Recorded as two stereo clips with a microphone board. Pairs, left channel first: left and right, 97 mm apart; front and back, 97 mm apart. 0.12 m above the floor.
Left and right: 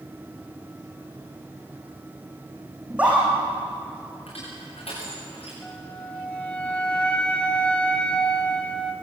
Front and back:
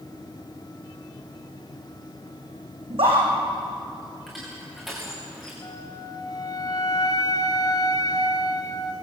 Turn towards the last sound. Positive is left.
turn(degrees=15)